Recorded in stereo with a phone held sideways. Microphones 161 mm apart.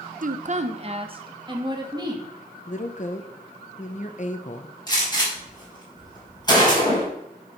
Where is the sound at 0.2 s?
60° right (ahead or behind), 0.8 m; by 2.3 s 25° right (ahead or behind), 2.5 m.